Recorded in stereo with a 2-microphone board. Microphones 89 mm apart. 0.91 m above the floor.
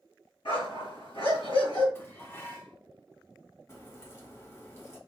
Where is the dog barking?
85° left, 3.5 m.